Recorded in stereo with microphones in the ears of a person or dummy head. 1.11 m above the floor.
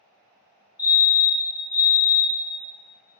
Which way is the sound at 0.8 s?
20° left (ahead or behind).